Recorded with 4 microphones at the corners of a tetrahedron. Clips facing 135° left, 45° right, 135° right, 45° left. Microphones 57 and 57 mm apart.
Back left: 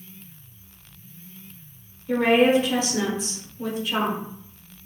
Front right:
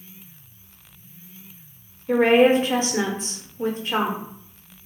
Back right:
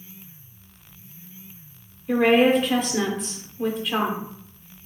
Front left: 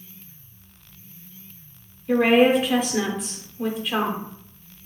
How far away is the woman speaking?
About 0.8 m.